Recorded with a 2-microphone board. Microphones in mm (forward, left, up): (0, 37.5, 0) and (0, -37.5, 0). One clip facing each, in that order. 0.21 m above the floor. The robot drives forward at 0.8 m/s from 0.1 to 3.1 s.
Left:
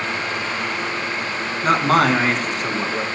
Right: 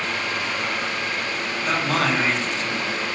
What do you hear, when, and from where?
1.6 s a man speaking: 50° left (ahead or behind), 1.7 m; by 3.0 s 45° left (ahead or behind), 1.8 m